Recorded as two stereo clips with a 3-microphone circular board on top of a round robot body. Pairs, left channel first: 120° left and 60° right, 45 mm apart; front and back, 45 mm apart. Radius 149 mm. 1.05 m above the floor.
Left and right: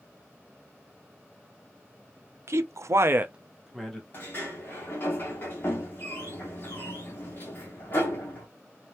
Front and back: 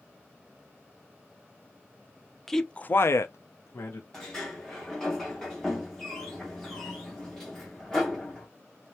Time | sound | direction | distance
2.5 | a man speaking | 85° right | 0.9 m
4.1 | a sliding door | 80° left | 0.6 m